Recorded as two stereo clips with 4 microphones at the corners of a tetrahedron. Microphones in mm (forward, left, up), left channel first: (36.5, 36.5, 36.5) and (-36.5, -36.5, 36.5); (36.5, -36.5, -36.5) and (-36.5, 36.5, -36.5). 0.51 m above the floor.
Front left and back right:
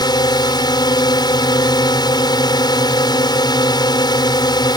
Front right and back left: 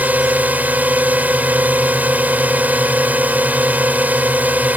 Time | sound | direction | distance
0.0 | a drone | 65° left | ?